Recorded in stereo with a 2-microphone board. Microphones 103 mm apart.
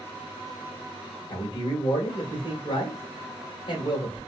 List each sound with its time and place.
1.3 s a man speaking: 55° left (ahead or behind), 1.3 m